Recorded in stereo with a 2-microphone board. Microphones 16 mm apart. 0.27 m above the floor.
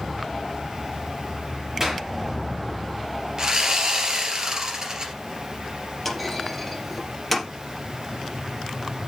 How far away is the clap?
About 5 m.